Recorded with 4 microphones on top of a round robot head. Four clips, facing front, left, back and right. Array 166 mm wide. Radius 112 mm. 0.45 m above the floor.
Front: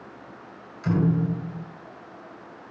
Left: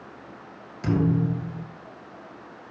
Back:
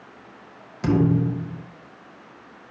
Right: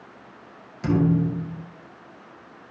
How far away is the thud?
About 5.5 m.